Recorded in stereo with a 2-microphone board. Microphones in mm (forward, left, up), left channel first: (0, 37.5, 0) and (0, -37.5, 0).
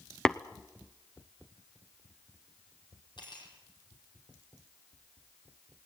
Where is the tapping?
10° left (ahead or behind), 0.6 m.